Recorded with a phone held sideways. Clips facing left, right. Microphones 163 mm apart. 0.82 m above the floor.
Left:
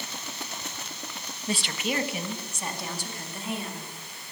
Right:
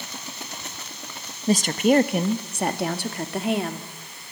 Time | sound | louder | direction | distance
1.5 | a woman speaking | right 12 dB | 40° right (ahead or behind) | 1.0 m